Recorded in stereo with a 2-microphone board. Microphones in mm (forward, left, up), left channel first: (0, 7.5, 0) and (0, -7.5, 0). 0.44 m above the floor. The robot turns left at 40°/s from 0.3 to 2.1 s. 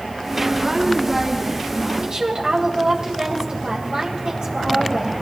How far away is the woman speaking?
About 2.5 m.